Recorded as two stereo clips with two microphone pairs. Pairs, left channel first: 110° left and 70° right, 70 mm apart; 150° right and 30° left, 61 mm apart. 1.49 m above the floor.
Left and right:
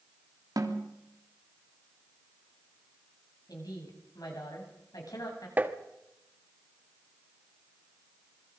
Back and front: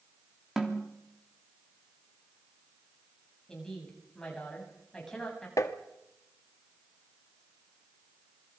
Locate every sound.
0.6 s a snare drum: 50° right, 3.5 m
3.5 s a woman speaking: 130° left, 8.5 m
5.6 s tapping: 135° right, 1.6 m